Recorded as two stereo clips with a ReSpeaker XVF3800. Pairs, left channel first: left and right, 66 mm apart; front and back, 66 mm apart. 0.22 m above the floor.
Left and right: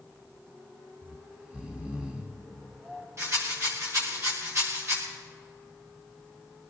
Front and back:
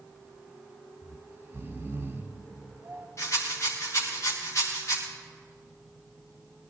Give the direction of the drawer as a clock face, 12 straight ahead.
No drawer in this recording.